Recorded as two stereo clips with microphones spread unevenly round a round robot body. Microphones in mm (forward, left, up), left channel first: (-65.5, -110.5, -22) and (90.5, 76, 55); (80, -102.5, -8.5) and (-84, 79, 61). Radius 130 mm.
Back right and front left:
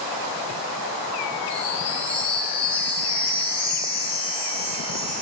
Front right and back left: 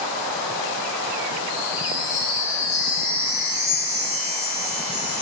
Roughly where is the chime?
Ahead right.